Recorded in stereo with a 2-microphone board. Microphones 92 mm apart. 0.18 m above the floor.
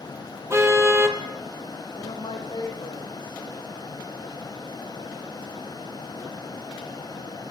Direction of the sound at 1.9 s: 70° left (ahead or behind).